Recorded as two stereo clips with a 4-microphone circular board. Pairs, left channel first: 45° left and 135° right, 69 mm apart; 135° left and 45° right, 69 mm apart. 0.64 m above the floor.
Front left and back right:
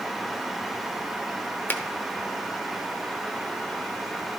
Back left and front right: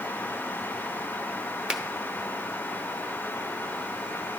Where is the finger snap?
20° left, 0.9 m.